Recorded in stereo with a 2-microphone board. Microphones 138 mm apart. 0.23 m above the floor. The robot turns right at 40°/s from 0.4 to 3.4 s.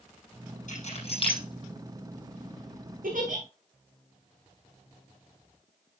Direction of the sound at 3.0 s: 90° right.